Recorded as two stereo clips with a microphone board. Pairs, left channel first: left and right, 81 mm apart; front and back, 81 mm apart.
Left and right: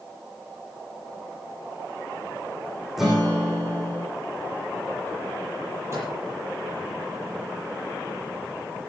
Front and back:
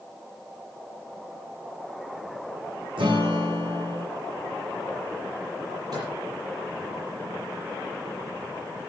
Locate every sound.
3.0 s a guitar: 175° right, 8 m
5.9 s a microwave: 145° right, 8 m